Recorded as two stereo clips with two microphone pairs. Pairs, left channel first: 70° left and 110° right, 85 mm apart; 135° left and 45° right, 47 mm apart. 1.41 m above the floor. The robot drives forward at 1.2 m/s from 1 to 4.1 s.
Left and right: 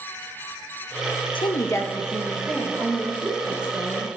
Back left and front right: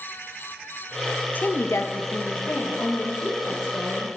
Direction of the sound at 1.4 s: 85° left.